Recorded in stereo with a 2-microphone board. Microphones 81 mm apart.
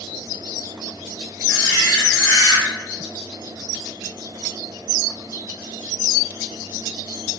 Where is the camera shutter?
40° left (ahead or behind), 1.6 m.